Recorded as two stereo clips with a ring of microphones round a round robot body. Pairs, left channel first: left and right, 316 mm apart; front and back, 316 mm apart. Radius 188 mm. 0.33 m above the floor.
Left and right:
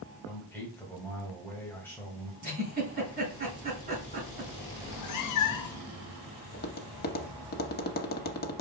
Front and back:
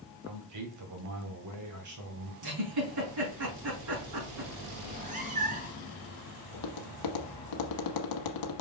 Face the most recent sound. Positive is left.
turn(degrees=30)